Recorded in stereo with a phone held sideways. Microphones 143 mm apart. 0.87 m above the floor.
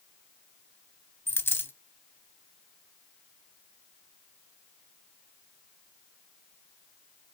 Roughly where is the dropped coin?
Centre.